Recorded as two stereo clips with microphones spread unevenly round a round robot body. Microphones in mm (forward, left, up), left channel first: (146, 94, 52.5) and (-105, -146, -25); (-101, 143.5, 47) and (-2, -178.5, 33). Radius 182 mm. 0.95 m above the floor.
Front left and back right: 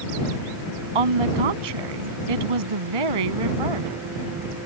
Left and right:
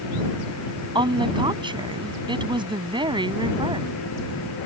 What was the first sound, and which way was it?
A woman speaking, 150° right.